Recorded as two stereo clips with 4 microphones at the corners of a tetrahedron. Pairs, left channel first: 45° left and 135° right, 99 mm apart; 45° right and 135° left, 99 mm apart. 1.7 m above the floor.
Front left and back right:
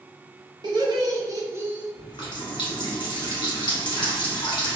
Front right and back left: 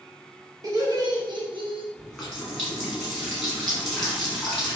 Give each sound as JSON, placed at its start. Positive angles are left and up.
{"t": 0.6, "sound": "laughter", "azimuth_deg": -175, "distance_m": 1.0}
{"t": 1.9, "sound": "a running tap", "azimuth_deg": 45, "distance_m": 1.2}